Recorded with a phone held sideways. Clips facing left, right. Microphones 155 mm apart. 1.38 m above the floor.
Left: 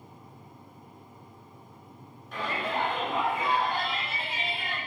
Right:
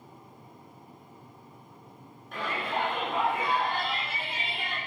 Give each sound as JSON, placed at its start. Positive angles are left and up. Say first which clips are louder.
{"t": 2.3, "sound": "a shout", "louder": "left 1 dB", "side_deg": 0, "distance_m": 5.0}